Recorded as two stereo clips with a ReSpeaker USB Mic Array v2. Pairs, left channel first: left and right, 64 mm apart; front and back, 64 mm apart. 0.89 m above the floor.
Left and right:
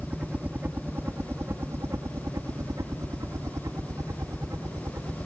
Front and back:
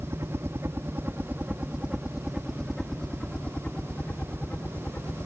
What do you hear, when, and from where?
0.0 s a helicopter: 155° right; by 5.3 s 55° right